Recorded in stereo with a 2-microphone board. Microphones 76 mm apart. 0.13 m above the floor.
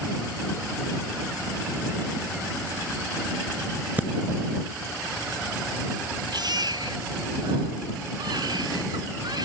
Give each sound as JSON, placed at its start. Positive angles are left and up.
{"t": 4.0, "sound": "breathing", "side_deg": -25}
{"t": 6.3, "sound": "a baby crying", "side_deg": -65}